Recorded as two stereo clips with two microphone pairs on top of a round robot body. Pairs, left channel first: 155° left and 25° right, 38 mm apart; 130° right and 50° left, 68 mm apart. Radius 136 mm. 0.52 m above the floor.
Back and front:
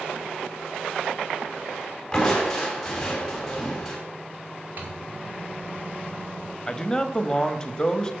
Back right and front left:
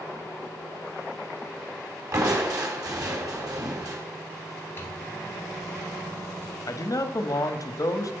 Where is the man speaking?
145° right, 1.4 m.